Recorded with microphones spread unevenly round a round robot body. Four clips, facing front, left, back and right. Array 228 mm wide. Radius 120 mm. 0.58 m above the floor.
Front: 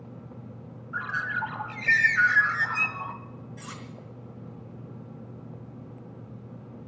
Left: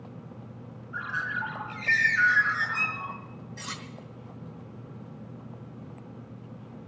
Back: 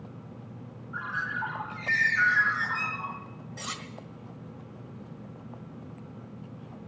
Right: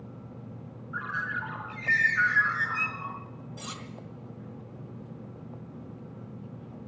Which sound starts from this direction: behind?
Cutlery clinking, at 3.6 s.